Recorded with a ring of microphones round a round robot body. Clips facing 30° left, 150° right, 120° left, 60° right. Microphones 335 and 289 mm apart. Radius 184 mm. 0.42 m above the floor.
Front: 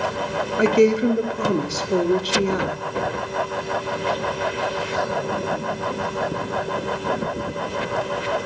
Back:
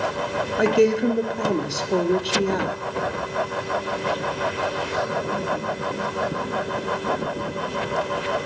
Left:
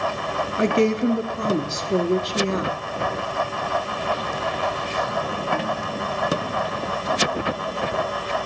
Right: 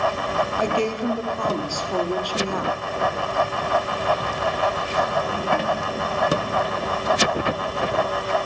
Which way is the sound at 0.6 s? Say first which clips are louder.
Front 2 dB, left 6 dB; 105° left.